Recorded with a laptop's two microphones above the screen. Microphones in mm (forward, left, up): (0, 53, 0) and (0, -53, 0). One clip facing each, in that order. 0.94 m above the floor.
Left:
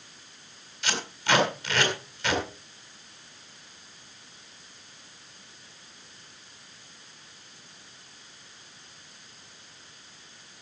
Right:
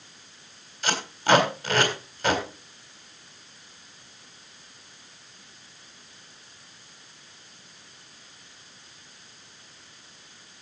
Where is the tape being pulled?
40° right (ahead or behind), 3.5 m.